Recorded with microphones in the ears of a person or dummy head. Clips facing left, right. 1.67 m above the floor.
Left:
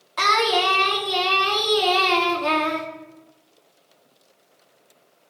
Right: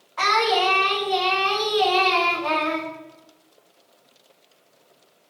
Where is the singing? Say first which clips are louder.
Even; 50° left (ahead or behind), 2.5 m.